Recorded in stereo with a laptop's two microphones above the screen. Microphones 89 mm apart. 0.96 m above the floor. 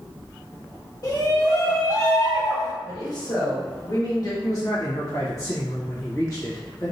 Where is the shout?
40° left (ahead or behind), 1.8 m; by 2.7 s 30° left (ahead or behind), 1.1 m.